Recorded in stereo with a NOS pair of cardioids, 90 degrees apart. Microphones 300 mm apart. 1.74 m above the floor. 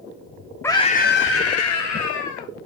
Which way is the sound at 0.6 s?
5° left.